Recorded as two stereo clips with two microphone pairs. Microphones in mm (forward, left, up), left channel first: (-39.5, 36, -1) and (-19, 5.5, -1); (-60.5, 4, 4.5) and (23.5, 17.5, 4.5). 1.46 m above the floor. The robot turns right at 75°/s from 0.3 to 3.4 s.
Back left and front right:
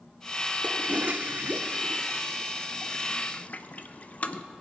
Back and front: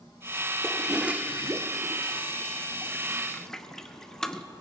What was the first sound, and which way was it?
A toilet flushing, 95° right.